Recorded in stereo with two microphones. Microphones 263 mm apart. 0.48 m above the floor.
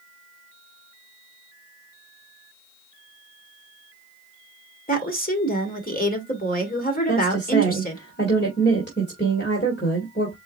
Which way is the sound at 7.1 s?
40° left (ahead or behind).